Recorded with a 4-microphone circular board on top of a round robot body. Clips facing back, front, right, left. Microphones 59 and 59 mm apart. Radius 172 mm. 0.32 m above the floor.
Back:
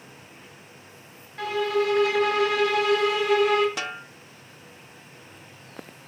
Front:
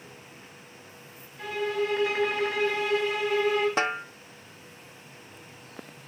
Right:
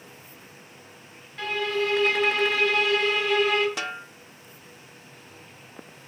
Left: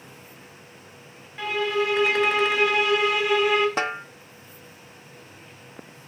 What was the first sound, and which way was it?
A violin, 170° left.